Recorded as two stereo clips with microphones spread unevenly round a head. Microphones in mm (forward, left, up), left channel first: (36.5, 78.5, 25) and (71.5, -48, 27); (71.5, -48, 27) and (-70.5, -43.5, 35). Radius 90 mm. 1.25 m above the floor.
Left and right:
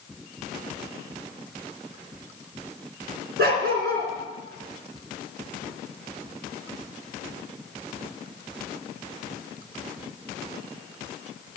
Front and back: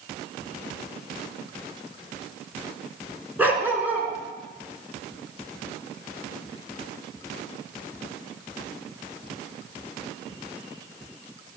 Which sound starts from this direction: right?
A dog barking, at 3.4 s.